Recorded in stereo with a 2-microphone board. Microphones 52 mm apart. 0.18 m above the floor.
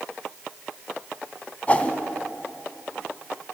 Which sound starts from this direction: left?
A whoosh, at 1.7 s.